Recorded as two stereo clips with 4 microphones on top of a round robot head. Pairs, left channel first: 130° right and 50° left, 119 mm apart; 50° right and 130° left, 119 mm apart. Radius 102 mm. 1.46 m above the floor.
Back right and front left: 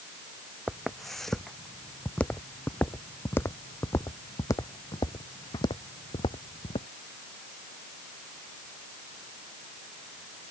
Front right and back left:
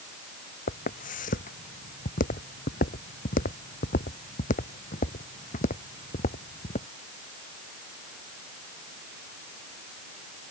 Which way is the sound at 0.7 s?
40° right.